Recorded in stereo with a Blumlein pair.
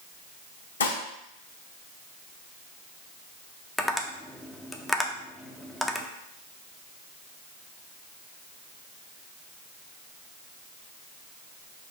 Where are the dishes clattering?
65° left, 1.0 m.